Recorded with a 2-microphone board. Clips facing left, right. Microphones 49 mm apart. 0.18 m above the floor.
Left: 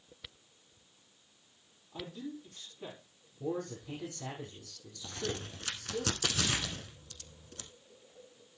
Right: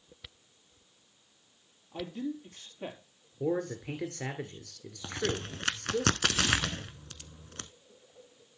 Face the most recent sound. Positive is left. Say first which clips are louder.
# right 5 dB
turn(degrees=-60)  # may be behind; listen again after turning